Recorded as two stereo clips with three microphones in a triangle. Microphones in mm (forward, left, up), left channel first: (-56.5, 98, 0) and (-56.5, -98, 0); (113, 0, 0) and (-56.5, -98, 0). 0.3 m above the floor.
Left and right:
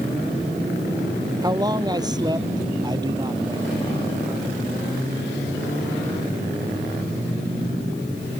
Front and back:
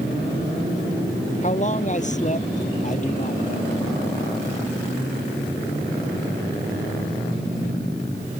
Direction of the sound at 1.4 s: 20° right.